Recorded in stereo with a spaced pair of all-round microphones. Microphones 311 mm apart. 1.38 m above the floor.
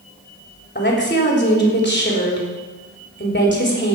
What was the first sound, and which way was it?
A woman speaking, 35° left (ahead or behind).